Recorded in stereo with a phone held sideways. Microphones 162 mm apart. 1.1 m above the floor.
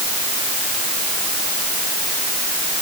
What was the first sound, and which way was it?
Only background noise.